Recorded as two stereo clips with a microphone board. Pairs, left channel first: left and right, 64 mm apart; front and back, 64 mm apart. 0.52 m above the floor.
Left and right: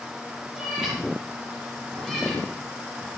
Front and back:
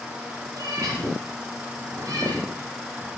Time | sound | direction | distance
0.5 | a cat meowing | 170° right | 6.5 m